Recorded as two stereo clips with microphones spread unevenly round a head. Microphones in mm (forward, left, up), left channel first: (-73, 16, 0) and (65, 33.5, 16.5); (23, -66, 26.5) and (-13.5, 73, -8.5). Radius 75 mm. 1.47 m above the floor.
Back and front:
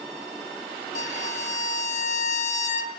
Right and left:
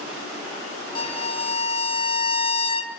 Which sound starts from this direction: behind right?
A violin, at 0.9 s.